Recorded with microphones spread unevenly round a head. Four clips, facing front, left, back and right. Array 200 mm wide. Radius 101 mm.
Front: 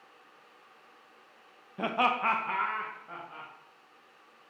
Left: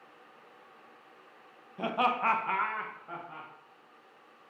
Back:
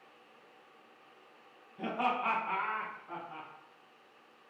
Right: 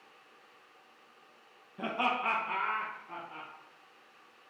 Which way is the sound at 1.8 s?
5° left.